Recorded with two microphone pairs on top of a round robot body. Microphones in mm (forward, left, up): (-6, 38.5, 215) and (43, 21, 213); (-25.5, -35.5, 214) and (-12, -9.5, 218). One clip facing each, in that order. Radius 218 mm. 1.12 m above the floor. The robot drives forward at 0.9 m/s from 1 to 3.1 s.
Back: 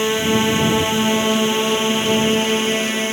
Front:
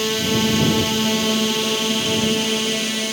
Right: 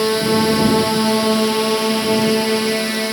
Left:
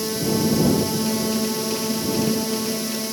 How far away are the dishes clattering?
No dishes clattering in this recording.